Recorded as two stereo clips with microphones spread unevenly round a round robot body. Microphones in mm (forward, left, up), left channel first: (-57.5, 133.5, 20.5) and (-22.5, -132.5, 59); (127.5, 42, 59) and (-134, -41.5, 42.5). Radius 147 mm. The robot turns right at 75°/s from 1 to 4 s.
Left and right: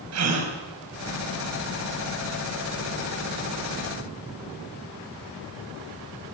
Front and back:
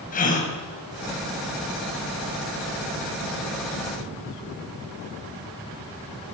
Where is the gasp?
45° right, 5 m.